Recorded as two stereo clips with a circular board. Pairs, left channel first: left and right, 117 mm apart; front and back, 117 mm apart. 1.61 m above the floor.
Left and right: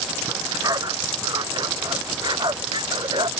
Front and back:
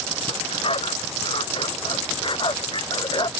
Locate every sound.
0.3 s a dog barking: 35° right; by 3.3 s 45° right